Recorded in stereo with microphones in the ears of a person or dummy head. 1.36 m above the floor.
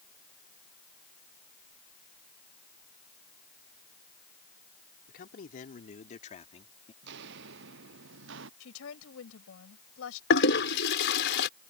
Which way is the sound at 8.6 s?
80° left.